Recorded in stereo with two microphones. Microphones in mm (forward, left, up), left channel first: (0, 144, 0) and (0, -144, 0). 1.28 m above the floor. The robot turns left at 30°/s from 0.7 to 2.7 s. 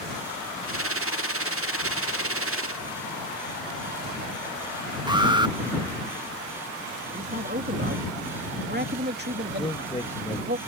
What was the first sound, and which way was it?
An alarm, 15° right (ahead or behind).